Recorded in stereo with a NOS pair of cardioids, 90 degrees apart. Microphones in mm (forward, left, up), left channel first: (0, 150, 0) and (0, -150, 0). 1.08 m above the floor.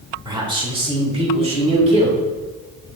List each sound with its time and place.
0.2 s a man speaking: 15° right, 2 m; by 2.2 s 25° right, 3.5 m